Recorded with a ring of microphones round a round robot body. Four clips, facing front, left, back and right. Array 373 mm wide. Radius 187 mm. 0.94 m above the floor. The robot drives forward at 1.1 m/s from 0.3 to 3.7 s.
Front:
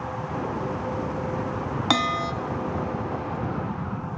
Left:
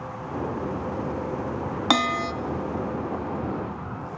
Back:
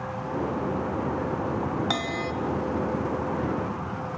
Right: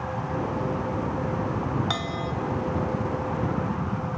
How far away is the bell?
About 1.3 m.